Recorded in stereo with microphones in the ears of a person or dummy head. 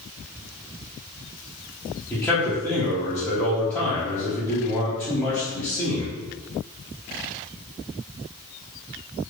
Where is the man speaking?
5° left (ahead or behind), 0.8 m.